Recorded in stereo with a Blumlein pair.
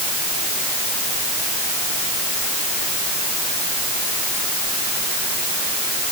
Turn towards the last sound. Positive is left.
No sound to turn to.